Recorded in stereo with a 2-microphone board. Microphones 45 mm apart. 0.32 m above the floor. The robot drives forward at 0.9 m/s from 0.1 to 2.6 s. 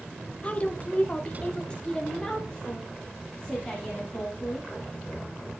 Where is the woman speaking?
30° left (ahead or behind), 1.0 m; by 4.7 s 15° left (ahead or behind), 1.9 m.